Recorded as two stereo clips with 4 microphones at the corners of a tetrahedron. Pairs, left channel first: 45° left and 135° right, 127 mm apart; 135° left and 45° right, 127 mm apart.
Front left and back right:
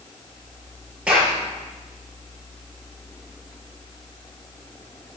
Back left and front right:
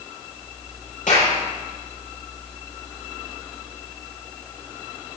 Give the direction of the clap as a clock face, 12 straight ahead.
7 o'clock.